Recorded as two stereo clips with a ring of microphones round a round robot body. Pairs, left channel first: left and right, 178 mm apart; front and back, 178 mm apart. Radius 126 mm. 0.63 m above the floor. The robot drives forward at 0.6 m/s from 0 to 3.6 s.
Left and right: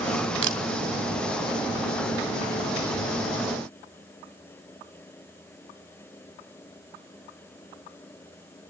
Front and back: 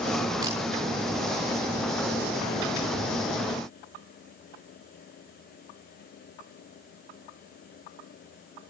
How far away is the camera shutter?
About 2.5 m.